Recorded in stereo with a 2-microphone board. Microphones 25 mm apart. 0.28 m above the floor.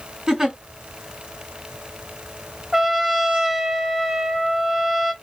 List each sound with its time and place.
0.3 s a giggle: 25° right (ahead or behind), 1.9 m
2.7 s a trumpet: 20° right (ahead or behind), 1.2 m